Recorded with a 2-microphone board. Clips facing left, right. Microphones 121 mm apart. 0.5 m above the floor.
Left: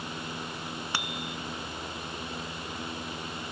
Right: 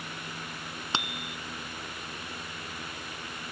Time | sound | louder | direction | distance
0.9 | a bicycle bell | right 3 dB | 25° right (ahead or behind) | ?